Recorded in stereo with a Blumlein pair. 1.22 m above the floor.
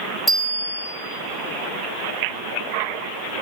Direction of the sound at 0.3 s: 5° left.